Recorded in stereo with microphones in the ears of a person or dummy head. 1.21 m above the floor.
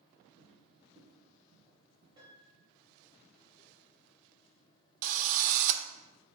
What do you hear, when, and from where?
0.4 s footsteps: 45° right (ahead or behind), 2.5 m
2.2 s a piano: 25° right (ahead or behind), 2 m
5.0 s a drill: 40° right (ahead or behind), 0.5 m